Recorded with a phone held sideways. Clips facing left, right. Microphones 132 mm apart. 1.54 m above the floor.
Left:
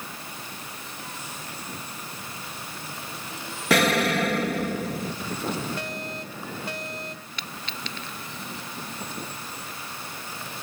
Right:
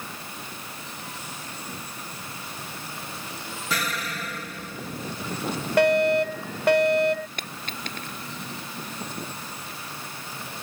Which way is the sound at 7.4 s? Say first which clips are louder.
Right 1 dB; 50° right (ahead or behind).